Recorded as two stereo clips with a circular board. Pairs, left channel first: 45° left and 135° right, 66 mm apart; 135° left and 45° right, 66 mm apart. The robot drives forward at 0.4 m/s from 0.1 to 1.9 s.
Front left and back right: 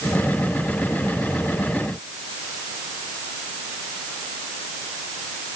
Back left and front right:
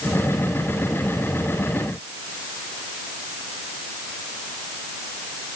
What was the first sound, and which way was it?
Only background noise.